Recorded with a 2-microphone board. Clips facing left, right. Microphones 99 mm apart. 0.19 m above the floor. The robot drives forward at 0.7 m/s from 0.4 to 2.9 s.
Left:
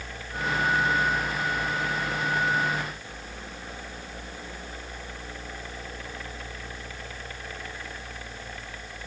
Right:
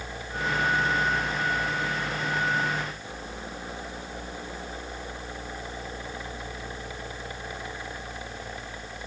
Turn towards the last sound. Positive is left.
No sound to turn to.